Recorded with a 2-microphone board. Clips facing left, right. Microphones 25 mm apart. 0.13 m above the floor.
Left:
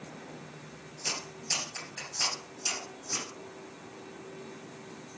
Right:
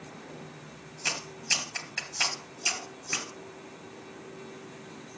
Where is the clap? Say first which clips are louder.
Right 4 dB; 45° right (ahead or behind), 2.5 m.